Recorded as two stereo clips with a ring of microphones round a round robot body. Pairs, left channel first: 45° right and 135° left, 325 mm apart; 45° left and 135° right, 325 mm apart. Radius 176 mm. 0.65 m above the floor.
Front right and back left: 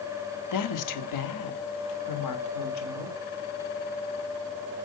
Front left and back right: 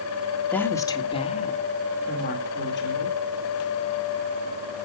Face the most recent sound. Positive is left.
turn(degrees=-10)